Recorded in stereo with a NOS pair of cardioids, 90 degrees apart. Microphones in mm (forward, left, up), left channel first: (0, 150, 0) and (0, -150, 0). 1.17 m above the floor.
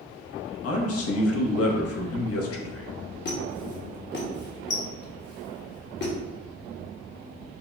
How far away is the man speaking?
About 0.9 m.